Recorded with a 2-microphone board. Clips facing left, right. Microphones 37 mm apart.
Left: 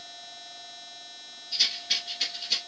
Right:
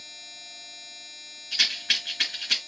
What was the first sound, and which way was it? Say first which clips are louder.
A rattle: right 4 dB; 75° right (ahead or behind).